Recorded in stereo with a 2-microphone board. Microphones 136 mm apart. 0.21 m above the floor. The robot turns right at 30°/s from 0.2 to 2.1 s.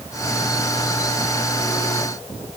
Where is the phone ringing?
No phone ringing in this recording.